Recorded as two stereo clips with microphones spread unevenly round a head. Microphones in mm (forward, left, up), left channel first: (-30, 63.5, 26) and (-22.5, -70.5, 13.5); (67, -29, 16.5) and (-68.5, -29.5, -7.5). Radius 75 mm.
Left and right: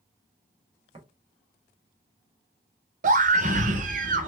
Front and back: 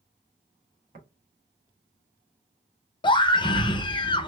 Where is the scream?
60° right, 0.6 m.